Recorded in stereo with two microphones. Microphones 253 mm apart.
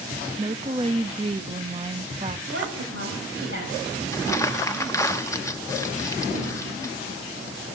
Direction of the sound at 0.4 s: 25° right (ahead or behind).